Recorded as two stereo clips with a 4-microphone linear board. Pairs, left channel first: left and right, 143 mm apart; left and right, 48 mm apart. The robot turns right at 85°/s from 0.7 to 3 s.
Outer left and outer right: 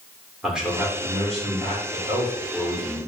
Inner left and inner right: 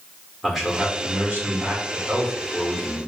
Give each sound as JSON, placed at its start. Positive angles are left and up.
{"t": 0.4, "sound": "a man speaking", "azimuth_deg": -175, "distance_m": 1.6}